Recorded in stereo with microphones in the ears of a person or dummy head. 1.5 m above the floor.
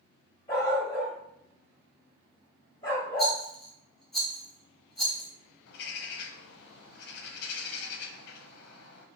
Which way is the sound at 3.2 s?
5° right (ahead or behind).